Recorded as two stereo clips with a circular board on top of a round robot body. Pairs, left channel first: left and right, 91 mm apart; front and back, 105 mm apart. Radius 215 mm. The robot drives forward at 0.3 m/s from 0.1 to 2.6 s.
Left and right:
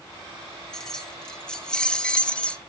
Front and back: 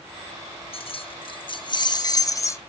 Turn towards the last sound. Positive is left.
turn(degrees=25)